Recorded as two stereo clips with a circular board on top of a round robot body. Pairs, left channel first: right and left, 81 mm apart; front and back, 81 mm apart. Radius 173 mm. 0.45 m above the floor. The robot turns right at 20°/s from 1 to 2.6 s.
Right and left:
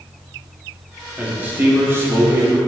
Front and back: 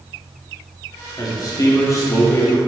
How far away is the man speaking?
About 2.5 m.